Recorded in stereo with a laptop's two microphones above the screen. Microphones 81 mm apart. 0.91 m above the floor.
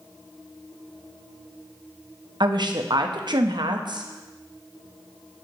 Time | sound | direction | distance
2.4 | a woman speaking | 65° right (ahead or behind) | 0.7 m